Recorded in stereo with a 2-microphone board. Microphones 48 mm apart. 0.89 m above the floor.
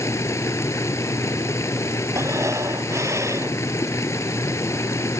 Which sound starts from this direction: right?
Breathing, at 2.1 s.